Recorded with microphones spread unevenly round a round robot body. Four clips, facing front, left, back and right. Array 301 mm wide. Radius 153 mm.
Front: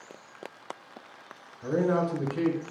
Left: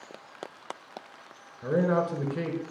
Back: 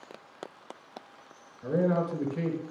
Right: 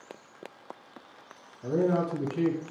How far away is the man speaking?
About 4 m.